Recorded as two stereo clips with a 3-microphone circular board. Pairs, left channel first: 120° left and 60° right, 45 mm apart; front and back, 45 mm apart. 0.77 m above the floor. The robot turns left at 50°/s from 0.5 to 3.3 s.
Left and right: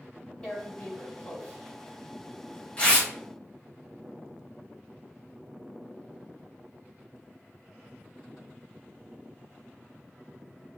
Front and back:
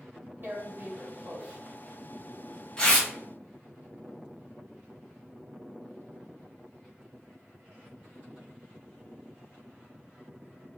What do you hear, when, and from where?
0.4 s tearing paper: 175° left, 1.2 m; by 3.1 s 45° left, 1.2 m